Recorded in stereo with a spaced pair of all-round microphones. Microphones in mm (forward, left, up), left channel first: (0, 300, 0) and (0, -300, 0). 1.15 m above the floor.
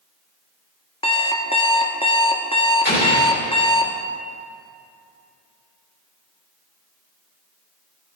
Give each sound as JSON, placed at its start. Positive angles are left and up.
{"t": 1.0, "sound": "an alarm clock", "side_deg": 10, "distance_m": 0.7}
{"t": 2.9, "sound": "an explosion", "side_deg": 20, "distance_m": 3.0}